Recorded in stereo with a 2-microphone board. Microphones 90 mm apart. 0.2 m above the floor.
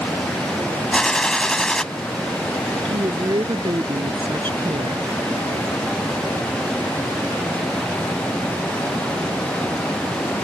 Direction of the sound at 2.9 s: 60° right (ahead or behind).